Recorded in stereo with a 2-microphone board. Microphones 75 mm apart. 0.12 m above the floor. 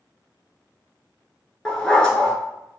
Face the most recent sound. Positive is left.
turn(degrees=10)  # may be behind; listen again after turning